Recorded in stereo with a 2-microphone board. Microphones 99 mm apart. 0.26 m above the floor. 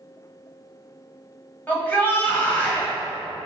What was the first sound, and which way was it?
A shout, 15° left (ahead or behind).